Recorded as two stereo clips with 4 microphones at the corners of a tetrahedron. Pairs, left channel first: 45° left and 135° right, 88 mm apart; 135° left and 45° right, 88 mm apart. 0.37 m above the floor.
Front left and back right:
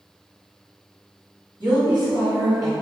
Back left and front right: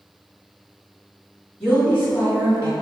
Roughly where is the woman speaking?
Behind right.